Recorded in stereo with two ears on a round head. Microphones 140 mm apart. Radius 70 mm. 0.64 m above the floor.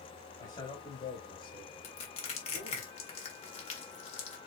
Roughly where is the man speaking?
Left.